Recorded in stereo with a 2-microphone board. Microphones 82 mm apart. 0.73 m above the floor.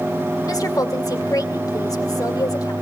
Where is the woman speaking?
50° left (ahead or behind), 2.5 m.